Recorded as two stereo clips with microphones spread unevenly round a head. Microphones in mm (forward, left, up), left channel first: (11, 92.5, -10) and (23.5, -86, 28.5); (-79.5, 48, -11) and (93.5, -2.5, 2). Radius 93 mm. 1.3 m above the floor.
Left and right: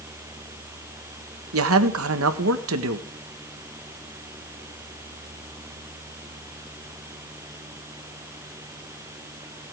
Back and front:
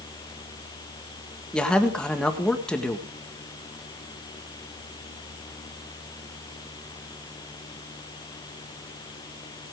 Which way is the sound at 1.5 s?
110° right.